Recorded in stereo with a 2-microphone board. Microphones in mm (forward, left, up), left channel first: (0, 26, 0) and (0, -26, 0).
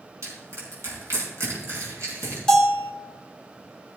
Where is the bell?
10° left (ahead or behind), 2 m.